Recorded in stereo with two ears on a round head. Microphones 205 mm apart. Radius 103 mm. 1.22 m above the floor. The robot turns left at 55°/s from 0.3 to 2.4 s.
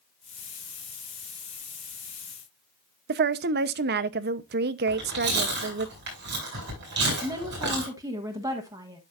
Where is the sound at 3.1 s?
45° right (ahead or behind), 0.7 m.